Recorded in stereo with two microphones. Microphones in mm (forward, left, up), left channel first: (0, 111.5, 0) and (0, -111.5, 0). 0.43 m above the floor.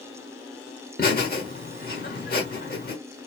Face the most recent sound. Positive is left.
turn(degrees=40)  # may be behind; listen again after turning